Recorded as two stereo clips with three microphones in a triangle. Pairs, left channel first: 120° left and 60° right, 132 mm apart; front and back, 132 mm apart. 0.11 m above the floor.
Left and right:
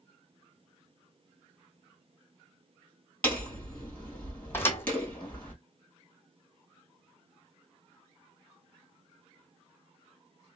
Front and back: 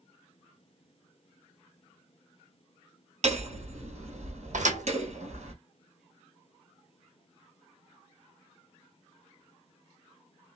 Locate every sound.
3.2 s hammering: 165° right, 2 m
4.5 s a thud: 170° right, 1.3 m